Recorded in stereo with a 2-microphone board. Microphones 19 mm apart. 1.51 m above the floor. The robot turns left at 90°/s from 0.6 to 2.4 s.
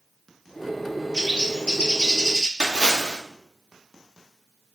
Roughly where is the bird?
Behind left.